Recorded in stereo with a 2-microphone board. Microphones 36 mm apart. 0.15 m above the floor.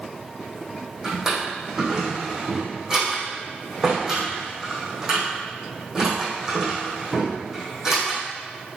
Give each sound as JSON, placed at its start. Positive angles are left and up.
{"t": 1.0, "sound": "a drawer", "side_deg": -15, "distance_m": 4.0}